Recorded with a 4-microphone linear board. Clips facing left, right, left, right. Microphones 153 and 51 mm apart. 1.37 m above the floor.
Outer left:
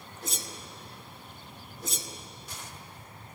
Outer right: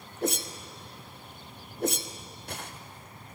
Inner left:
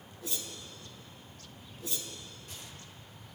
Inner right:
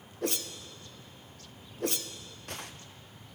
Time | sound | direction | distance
0.2 | a whoosh | 65° right (ahead or behind) | 0.6 m